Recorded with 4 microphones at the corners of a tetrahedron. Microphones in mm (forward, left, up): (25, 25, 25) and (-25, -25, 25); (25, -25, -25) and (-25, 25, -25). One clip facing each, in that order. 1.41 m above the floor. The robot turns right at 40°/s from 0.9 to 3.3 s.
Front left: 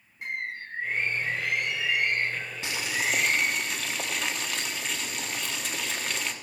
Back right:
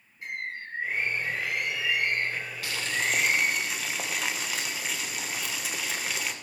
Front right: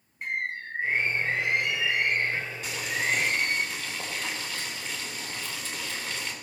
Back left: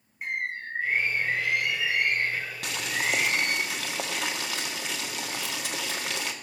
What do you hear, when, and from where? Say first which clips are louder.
0.2 s a bird: front left 2 dB, even; 50° left, 5 m; by 3.6 s 150° left, 5 m
2.6 s boiling: even, even; 110° left, 1.4 m; by 6.3 s 140° left, 1.4 m